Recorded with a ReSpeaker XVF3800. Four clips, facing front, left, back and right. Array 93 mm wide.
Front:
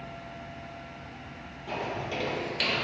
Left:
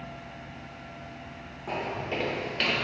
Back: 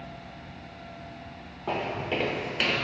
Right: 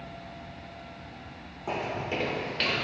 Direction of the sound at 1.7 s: 160° right.